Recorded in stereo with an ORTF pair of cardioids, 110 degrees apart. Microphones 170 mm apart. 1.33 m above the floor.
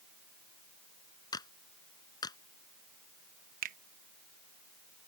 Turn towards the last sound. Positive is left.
turn(degrees=-60)